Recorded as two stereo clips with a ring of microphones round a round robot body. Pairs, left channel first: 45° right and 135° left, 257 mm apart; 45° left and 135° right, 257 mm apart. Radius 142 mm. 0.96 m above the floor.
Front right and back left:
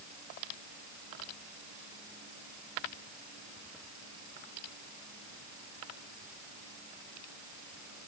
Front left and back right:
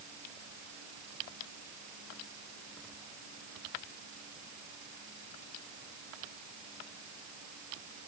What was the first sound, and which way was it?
Only background noise.